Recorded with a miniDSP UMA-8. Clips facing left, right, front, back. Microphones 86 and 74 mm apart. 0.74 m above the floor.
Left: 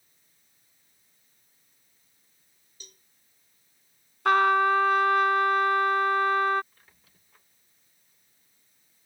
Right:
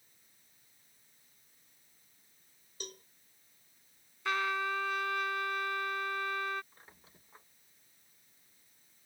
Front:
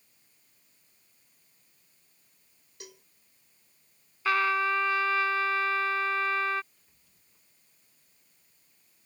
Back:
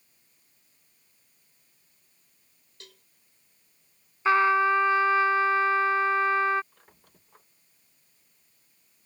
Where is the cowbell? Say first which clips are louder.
Right 10 dB, front 4 dB; 75° right.